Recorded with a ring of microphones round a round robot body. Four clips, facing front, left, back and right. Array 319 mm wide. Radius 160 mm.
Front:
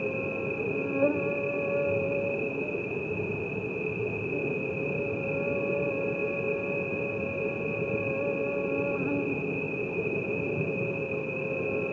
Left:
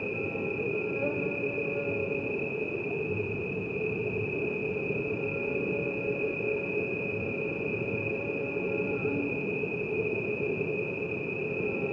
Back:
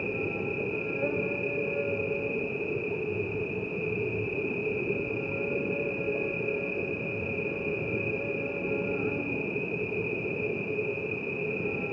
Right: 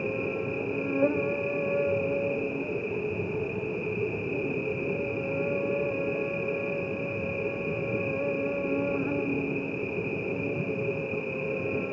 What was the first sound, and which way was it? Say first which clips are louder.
An insect: right 3 dB, front 1 dB; 40° right.